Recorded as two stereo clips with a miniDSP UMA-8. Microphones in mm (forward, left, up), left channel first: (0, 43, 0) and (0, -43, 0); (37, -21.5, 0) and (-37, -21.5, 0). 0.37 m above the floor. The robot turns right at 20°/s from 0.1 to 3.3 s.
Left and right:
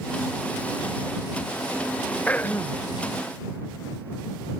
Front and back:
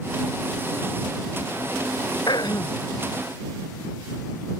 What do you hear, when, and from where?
2.3 s throat clearing: 15° left; by 2.9 s 30° left